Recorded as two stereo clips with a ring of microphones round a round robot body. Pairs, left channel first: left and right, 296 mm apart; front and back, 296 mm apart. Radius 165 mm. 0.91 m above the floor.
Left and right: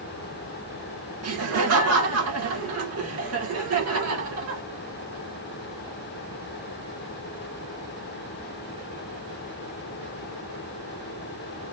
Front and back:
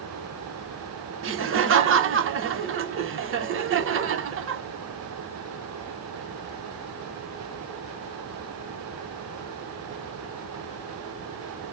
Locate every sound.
1.2 s laughter: 130° right, 0.9 m